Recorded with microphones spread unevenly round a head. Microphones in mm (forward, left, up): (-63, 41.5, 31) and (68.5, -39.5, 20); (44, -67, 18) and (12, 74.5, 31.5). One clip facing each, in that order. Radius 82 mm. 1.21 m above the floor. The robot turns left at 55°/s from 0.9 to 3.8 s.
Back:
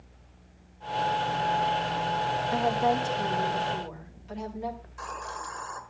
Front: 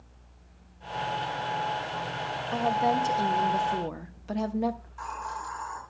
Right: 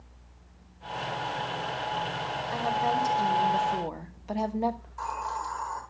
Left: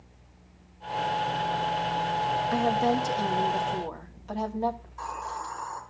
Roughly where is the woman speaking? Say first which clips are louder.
Front 1 dB, left 2 dB; left.